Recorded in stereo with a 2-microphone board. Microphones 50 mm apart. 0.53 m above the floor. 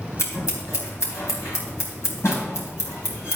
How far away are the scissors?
About 3 m.